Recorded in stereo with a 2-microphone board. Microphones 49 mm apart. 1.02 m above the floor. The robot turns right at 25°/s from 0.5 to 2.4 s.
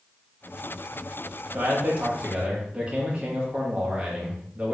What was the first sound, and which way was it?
A man speaking, 45° right (ahead or behind).